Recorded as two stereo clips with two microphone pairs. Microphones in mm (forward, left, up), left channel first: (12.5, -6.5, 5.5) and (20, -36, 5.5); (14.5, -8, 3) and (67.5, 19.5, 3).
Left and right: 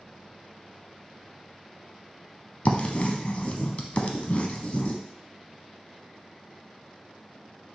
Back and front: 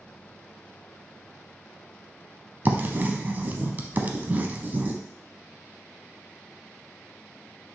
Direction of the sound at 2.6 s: 75° left.